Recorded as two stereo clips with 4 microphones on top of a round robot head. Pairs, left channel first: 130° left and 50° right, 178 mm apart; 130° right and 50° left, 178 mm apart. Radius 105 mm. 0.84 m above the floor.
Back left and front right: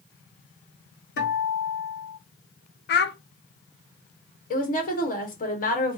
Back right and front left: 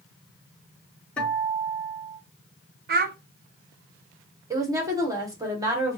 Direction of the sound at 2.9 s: 95° left.